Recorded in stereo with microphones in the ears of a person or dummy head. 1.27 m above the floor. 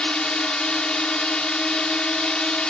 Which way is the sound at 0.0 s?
5° left (ahead or behind).